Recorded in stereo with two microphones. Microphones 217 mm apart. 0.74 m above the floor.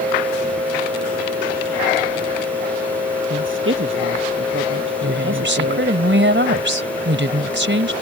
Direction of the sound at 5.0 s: 65° right (ahead or behind).